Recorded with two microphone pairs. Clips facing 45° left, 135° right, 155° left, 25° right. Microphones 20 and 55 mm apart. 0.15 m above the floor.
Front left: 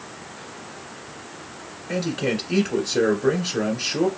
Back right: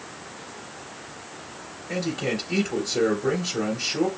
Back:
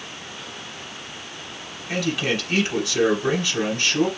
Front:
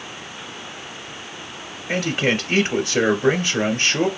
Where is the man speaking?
20° left, 1.3 m.